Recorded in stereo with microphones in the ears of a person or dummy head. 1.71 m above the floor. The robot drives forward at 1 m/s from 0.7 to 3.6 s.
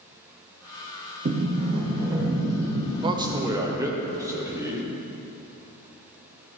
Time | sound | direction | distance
1.2 | a sliding door | 40° right (ahead or behind) | 0.8 m
3.0 | a man speaking | 25° right (ahead or behind) | 0.6 m